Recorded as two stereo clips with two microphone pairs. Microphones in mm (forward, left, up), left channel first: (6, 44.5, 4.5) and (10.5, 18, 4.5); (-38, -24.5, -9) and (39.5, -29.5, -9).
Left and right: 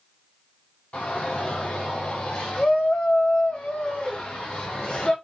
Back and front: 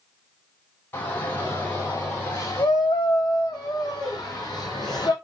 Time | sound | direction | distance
0.9 | a shout | 115° left | 3 m